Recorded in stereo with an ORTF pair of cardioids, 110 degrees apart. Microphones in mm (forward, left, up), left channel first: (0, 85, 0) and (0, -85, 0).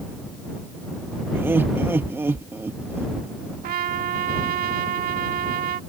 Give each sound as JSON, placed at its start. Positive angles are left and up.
{"t": 1.3, "sound": "laughter", "azimuth_deg": -15}
{"t": 3.6, "sound": "a trumpet", "azimuth_deg": -60}